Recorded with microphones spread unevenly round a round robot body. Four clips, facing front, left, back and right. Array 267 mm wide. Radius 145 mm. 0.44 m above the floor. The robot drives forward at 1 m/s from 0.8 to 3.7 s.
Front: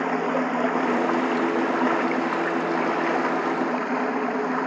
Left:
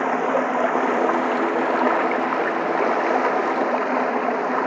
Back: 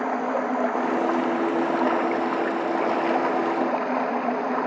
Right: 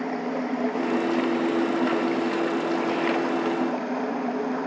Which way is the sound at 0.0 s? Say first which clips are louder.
Left 7 dB, front 1 dB; 70° left.